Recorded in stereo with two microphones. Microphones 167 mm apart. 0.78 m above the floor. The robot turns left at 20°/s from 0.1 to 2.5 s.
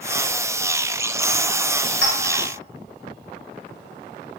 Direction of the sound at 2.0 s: 85° right.